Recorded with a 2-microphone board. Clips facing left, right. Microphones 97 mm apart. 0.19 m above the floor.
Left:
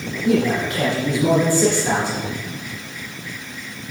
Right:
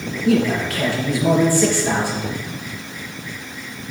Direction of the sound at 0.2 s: 20° left (ahead or behind).